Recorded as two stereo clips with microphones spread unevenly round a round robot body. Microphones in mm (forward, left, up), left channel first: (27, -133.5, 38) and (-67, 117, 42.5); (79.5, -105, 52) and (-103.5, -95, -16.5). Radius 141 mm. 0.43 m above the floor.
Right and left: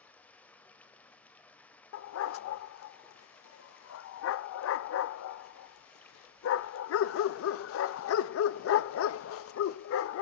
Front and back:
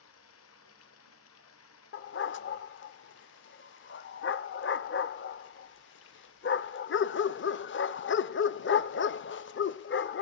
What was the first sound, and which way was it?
Running water, 15° left.